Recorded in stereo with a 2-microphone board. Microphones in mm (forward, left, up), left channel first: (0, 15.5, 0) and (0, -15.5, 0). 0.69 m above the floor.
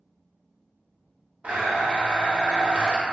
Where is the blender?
50° right (ahead or behind), 0.8 m.